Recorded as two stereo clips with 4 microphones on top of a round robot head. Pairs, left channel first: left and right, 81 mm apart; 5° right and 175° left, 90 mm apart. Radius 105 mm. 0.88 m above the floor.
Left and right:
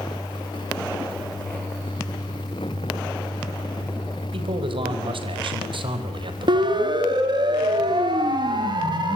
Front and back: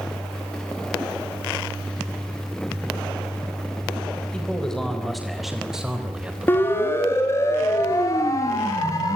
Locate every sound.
4.3 s a man speaking: 85° right, 4.5 m; by 6.9 s 110° right, 4 m
6.5 s a siren: 70° right, 3 m; by 9.2 s 60° right, 4.5 m